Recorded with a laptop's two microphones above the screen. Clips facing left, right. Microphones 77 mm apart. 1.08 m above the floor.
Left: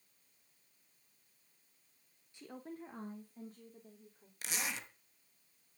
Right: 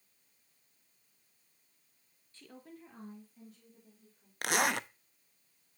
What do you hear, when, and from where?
2.3 s a woman speaking: 15° left (ahead or behind), 0.8 m; by 4.3 s 50° left (ahead or behind), 3 m
4.4 s a zipper: 65° right (ahead or behind), 0.5 m